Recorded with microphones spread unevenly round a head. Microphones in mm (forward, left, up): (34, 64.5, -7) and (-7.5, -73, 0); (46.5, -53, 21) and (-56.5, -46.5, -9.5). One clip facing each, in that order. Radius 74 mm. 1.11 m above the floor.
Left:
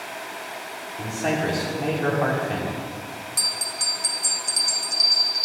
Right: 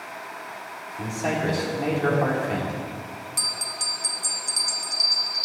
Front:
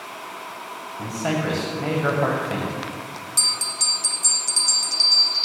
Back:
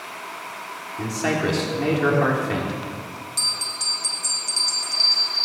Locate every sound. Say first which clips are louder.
1.0 s a man speaking: left 1 dB, back 1 dB; 170° left, 3 m
3.4 s a bell: left 2 dB, front 1 dB; 15° right, 0.8 m